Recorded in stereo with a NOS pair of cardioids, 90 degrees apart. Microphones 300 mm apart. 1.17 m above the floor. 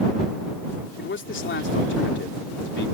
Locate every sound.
1.0 s a man speaking: 40° left